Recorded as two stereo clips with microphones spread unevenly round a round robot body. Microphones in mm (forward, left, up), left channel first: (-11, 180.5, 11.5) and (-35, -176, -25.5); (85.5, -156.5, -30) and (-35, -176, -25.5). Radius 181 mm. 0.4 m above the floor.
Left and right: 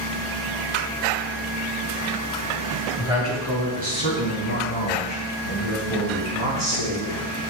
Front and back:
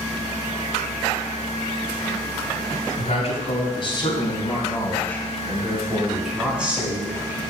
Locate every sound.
3.0 s a man speaking: 15° right, 2.5 m; by 7.4 s 100° right, 4 m